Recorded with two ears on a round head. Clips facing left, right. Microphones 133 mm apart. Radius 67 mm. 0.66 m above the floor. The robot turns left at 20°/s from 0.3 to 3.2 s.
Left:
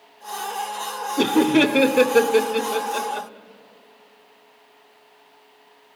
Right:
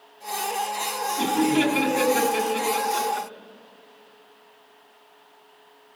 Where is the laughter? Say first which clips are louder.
Left 5 dB; 60° left (ahead or behind), 0.9 m; by 3.3 s 40° left (ahead or behind), 0.9 m.